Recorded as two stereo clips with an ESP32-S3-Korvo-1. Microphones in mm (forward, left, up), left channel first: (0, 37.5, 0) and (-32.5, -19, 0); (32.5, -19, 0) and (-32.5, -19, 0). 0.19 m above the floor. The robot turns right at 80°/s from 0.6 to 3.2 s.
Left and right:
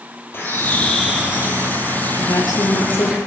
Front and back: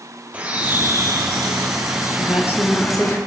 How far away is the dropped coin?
No dropped coin in this recording.